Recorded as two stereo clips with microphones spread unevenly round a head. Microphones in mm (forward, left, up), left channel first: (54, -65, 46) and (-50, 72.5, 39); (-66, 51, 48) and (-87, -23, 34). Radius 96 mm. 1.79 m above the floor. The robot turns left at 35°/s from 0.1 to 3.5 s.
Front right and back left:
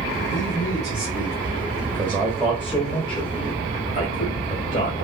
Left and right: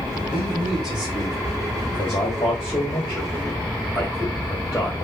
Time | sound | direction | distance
0.3 | a man speaking | 20° left | 2.0 m
1.8 | a man speaking | 55° left | 1.3 m